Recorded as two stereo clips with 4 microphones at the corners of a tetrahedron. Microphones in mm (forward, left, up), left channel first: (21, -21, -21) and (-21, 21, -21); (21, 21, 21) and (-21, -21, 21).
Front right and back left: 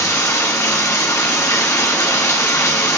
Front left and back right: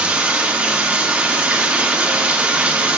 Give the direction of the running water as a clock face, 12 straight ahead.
2 o'clock.